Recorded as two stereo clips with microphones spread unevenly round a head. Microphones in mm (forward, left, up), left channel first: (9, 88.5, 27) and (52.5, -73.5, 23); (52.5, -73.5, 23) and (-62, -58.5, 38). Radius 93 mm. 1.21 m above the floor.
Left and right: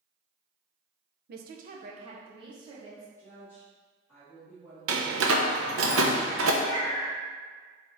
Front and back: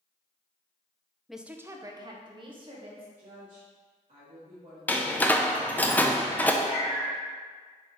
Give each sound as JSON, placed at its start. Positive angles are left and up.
{"t": 1.3, "sound": "a woman speaking", "azimuth_deg": -95, "distance_m": 0.5}
{"t": 3.2, "sound": "a woman speaking", "azimuth_deg": -175, "distance_m": 1.5}
{"t": 4.9, "sound": "a door slam", "azimuth_deg": -85, "distance_m": 0.6}
{"t": 6.6, "sound": "a cat meowing", "azimuth_deg": 45, "distance_m": 1.4}